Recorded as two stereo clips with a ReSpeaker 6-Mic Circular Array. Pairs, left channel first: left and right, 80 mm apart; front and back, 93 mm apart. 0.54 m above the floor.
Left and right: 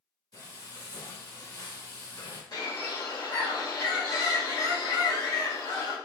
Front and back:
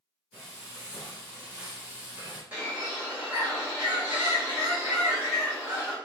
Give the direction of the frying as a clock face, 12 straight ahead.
9 o'clock.